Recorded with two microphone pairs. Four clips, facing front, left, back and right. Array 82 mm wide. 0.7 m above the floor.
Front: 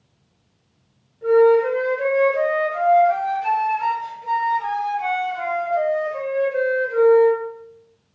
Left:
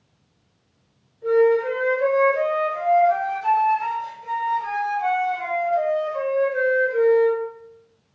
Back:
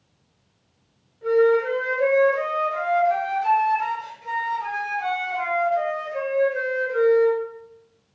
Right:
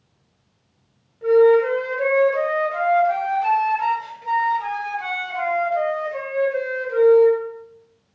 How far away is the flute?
About 2 m.